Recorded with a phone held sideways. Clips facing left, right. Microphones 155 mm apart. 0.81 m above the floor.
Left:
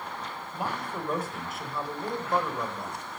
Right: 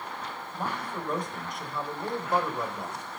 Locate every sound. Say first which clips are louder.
0.5 s a man speaking: left 1 dB; 10° left (ahead or behind), 3.5 m; by 3.0 s 15° right (ahead or behind), 2.5 m